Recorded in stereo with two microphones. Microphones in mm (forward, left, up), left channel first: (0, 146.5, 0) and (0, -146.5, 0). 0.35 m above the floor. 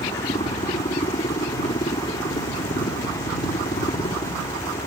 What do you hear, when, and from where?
0.0 s a helicopter: 25° left (ahead or behind)